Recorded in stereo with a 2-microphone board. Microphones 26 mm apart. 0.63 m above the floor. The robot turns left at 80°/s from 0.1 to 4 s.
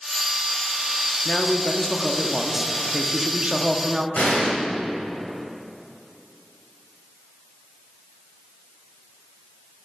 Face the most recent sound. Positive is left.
turn(degrees=75)  # may be behind; listen again after turning